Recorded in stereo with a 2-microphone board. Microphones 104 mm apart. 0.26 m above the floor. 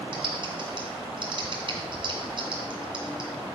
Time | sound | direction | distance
0.1 | typing on a keyboard | 50° right (ahead or behind) | 1.9 m